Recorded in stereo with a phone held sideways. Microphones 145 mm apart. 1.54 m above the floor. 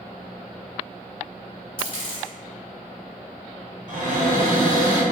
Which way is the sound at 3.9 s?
65° right (ahead or behind).